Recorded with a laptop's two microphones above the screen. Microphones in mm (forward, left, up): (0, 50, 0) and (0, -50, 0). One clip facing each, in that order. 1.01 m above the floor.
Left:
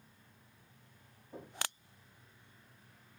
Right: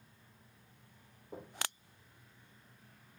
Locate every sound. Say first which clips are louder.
1.3 s knocking: right 1 dB; 85° right, 2.5 m